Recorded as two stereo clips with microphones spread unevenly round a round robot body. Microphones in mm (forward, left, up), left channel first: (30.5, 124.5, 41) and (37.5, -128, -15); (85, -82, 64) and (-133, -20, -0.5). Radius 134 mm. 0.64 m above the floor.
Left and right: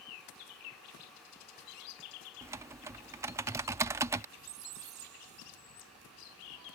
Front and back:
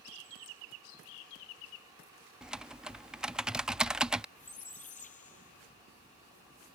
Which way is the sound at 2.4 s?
135° right.